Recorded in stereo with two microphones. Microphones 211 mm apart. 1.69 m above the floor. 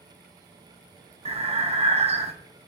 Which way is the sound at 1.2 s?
30° right (ahead or behind).